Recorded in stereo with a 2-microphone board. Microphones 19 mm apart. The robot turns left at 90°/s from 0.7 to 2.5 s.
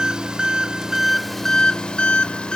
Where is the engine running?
130° right, 0.9 m; by 2.6 s 70° left, 0.9 m.